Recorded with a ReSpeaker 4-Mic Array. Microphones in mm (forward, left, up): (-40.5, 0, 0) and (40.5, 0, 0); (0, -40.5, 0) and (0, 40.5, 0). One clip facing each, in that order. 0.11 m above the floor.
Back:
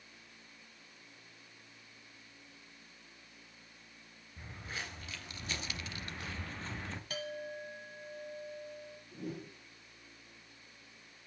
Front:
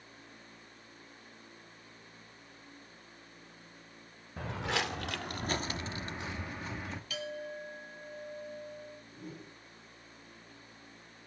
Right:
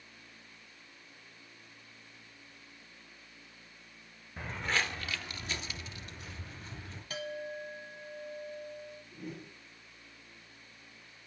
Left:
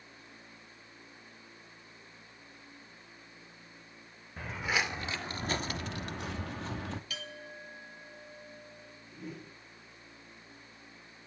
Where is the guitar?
I don't hear a guitar.